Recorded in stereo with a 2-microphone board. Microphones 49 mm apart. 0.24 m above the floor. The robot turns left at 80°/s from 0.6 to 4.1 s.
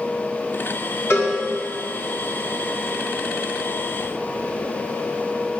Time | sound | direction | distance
1.1 | a cowbell | 60° left (ahead or behind) | 1.6 m